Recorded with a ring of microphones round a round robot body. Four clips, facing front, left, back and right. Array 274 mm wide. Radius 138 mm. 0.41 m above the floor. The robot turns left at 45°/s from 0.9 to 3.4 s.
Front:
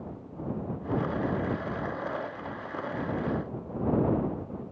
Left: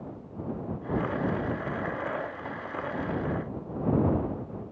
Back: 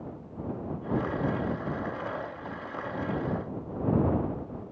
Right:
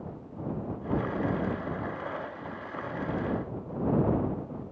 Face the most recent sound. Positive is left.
No sound to turn to.